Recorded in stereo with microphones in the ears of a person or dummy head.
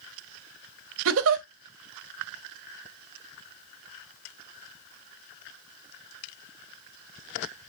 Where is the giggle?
75° right (ahead or behind), 0.6 m.